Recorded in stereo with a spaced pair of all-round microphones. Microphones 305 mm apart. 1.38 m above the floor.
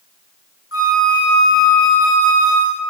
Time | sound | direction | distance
0.7 | a flute | 45° left (ahead or behind) | 0.9 m